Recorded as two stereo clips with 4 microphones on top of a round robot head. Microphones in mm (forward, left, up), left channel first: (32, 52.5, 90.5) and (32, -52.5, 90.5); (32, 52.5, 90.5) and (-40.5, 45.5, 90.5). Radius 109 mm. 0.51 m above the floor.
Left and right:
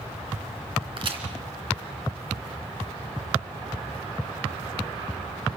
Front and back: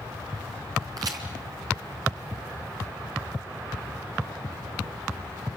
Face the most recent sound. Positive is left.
turn(degrees=-135)